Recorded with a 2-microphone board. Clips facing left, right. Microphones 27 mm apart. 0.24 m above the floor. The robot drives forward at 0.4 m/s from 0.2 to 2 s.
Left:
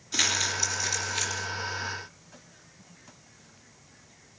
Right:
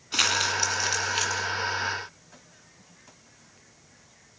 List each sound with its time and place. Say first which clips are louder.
0.1 s crumpling: right 3 dB; 40° right (ahead or behind), 2 m; by 1.5 s 35° right (ahead or behind), 2.5 m